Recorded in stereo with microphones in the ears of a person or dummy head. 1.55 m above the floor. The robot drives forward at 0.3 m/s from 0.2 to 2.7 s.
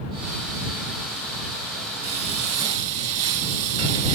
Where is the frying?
35° right (ahead or behind), 1.9 m; by 4.2 s 40° right (ahead or behind), 1.7 m.